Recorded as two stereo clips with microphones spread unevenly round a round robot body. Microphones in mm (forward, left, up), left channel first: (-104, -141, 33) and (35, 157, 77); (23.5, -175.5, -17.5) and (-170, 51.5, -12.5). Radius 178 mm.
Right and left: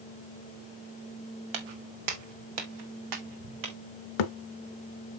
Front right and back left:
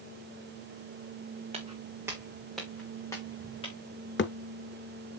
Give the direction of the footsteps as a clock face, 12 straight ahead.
10 o'clock.